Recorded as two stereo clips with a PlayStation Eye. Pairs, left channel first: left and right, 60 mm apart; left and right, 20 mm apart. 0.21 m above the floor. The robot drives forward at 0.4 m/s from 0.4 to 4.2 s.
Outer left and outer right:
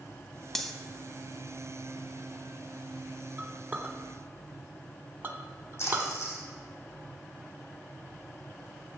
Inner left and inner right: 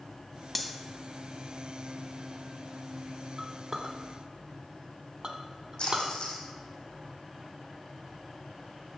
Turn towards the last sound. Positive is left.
turn(degrees=45)  # may be behind; listen again after turning